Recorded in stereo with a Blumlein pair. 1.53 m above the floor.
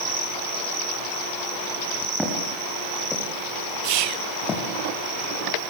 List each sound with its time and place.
2.2 s footsteps: 5° left, 8.5 m; by 4.6 s 25° left, 7 m
3.8 s whispering: 45° right, 0.6 m